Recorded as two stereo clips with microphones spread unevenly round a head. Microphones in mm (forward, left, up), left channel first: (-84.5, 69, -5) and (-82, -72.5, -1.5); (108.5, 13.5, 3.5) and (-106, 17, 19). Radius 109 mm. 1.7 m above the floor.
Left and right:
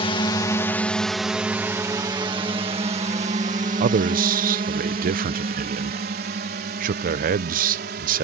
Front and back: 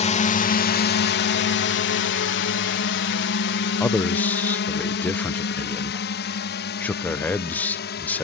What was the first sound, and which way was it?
A drone, 45° left.